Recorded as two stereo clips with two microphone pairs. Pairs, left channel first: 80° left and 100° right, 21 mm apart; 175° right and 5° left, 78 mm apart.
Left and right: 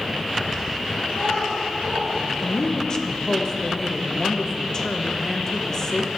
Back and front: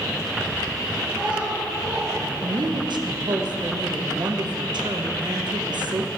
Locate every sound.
1.1 s a child speaking: 75° left, 3 m; by 2.1 s 85° left, 2.5 m
2.4 s a woman speaking: 20° left, 0.8 m